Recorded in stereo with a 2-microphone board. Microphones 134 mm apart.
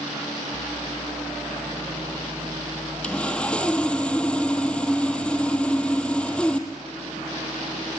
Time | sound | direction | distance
3.0 | sawing | 10° left (ahead or behind) | 1.9 m